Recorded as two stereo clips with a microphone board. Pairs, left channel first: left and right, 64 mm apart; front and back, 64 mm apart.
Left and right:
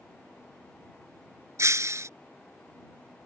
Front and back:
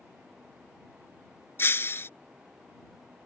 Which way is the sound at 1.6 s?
50° right.